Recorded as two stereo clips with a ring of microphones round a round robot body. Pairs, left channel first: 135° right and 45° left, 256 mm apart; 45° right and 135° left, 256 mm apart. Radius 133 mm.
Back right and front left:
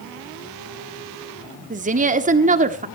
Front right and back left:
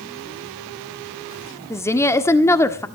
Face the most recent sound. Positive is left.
turn(degrees=25)